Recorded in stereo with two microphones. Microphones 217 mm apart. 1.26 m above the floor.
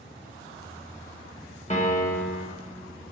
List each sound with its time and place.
1.7 s a piano: 30° left (ahead or behind), 2 m